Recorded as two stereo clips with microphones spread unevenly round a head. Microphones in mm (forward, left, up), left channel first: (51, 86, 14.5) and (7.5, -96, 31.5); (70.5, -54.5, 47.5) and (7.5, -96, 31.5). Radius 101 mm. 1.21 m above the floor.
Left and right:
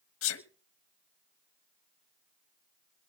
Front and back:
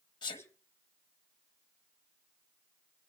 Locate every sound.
0.2 s a sneeze: 85° left, 1.3 m